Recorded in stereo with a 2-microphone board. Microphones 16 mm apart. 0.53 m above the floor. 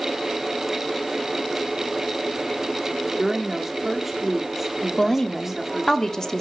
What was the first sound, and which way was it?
A woman speaking, 20° right (ahead or behind).